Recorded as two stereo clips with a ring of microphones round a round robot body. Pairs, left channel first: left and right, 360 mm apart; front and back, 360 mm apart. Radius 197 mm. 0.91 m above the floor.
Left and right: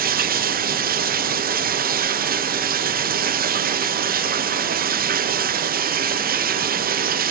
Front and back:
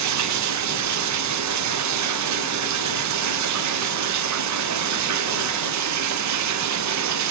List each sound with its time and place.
0.0 s running water: 150° right, 0.7 m